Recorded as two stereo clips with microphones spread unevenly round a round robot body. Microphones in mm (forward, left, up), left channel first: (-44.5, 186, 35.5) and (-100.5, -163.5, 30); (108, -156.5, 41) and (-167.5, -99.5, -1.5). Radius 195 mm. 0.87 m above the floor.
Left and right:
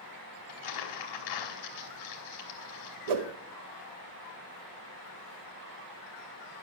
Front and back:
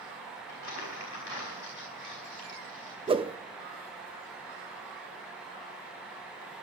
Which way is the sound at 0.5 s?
40° left.